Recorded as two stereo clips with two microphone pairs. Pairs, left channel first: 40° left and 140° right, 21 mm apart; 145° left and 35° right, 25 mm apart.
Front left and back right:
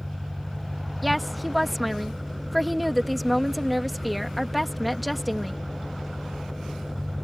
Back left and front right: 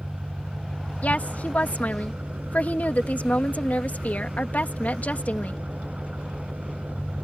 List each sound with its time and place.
0.0 s an engine running: 55° right
1.0 s a woman speaking: 130° left